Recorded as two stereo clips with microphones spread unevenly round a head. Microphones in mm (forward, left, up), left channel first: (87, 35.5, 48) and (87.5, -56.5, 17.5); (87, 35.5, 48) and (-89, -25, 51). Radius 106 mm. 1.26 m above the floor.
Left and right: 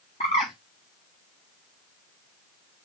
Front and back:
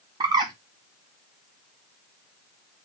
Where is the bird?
130° left, 0.8 m.